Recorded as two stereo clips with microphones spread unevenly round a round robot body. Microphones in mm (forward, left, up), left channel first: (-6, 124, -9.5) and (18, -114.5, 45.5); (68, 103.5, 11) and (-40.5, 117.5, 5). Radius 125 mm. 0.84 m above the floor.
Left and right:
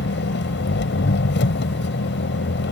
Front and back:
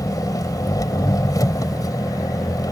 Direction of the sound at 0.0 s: 50° left.